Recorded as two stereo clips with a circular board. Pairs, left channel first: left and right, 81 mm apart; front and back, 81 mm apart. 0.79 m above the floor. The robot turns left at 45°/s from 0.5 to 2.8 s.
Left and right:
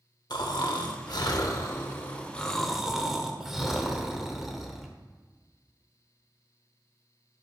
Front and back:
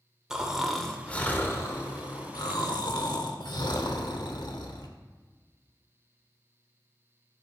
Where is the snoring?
100° left, 0.7 m; by 4.9 s 5° right, 0.7 m.